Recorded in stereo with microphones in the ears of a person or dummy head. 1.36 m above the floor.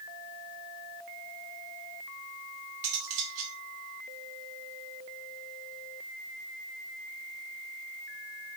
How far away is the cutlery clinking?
About 2 m.